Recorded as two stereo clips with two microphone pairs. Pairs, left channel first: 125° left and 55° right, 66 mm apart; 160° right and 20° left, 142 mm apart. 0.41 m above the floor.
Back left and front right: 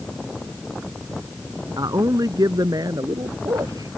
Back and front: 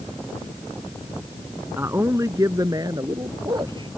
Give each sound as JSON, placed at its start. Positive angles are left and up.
{"t": 1.8, "sound": "a man speaking", "azimuth_deg": -55}